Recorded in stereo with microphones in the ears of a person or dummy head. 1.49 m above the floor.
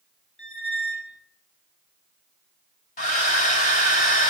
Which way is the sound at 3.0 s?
45° left (ahead or behind).